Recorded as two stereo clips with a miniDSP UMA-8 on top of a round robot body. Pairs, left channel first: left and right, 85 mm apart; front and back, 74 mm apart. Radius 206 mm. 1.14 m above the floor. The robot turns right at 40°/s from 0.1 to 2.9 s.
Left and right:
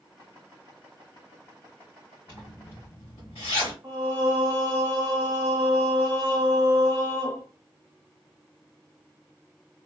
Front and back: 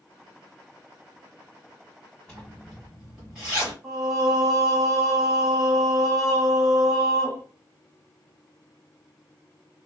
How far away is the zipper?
About 1.8 m.